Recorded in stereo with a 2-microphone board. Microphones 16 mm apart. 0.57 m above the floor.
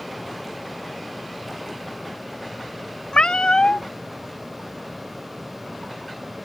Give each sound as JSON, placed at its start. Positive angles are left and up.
{"t": 3.1, "sound": "a cat meowing", "side_deg": 85}